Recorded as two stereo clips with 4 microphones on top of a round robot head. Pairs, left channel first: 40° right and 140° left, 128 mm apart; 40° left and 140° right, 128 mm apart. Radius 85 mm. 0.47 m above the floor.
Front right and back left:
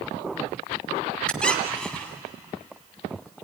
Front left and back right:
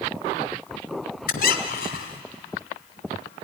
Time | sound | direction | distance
1.3 | a squeak | 40° left | 1.5 m